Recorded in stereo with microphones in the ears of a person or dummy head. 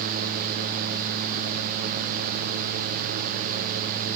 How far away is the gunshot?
No gunshot in this recording.